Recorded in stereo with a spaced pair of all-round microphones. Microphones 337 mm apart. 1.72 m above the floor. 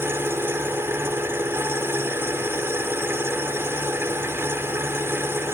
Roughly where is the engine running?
Centre.